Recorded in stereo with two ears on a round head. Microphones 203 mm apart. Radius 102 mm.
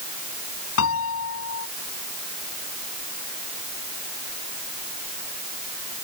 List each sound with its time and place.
0.8 s a piano: 65° left (ahead or behind)